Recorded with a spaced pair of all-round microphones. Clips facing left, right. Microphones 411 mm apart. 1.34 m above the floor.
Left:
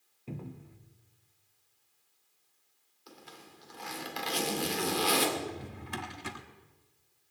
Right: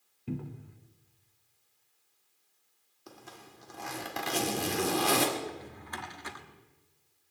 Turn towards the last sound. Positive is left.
turn(degrees=45)  # may be behind; listen again after turning